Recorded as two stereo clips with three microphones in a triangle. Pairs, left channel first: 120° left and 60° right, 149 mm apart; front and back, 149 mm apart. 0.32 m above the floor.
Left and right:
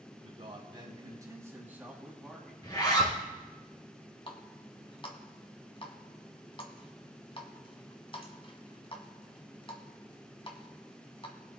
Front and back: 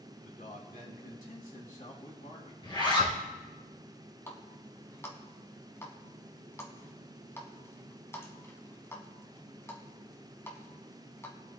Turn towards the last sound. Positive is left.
turn(degrees=70)